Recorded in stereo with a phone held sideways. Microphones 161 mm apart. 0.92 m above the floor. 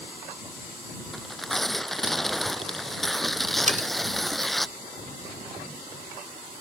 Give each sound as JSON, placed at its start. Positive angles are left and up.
{"t": 1.1, "sound": "tearing paper", "side_deg": 0}
{"t": 3.7, "sound": "cutlery clinking", "side_deg": -50}